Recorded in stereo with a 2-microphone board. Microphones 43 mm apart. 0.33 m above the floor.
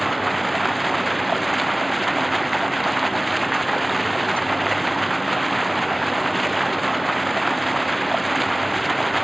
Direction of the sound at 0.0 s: Centre (ahead or behind).